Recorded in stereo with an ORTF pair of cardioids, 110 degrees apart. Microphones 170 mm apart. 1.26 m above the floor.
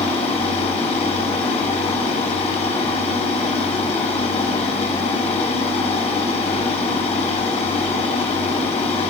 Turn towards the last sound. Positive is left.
turn(degrees=40)